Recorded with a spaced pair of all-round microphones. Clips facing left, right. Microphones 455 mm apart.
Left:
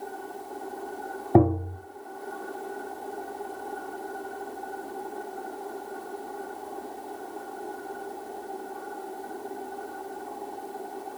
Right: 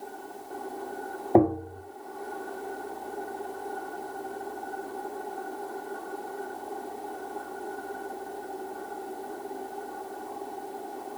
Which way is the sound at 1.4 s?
25° left (ahead or behind).